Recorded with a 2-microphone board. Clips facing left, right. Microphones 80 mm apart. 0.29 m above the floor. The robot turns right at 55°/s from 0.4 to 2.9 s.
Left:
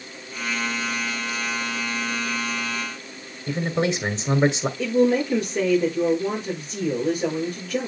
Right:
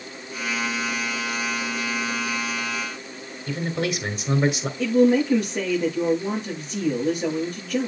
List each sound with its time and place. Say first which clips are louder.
3.5 s a man speaking: left 3 dB; 30° left (ahead or behind), 1.5 m
4.8 s a woman speaking: right 2 dB; centre (ahead or behind), 6.5 m